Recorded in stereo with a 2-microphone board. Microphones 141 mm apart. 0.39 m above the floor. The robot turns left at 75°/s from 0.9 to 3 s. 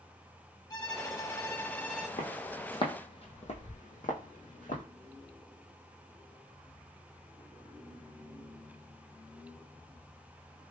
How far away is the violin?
About 0.5 m.